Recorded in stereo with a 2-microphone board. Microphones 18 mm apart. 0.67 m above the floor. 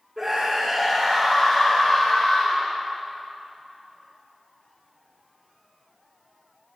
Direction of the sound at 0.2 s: 15° right (ahead or behind).